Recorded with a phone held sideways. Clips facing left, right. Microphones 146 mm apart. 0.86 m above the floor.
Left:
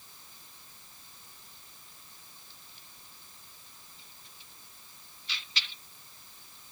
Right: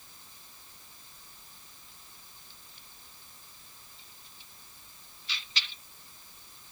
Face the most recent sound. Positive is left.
No sound to turn to.